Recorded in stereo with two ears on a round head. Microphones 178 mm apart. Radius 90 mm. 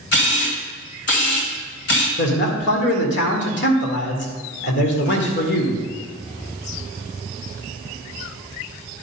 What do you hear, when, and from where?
0.1 s a camera shutter: 60° left (ahead or behind), 1.9 m
2.2 s a man speaking: 65° left (ahead or behind), 1.9 m